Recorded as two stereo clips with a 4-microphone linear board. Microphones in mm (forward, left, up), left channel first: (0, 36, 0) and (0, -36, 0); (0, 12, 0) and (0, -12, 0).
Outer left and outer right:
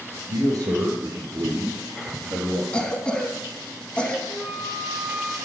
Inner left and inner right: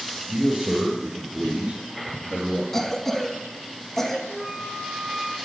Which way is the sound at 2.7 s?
15° left (ahead or behind).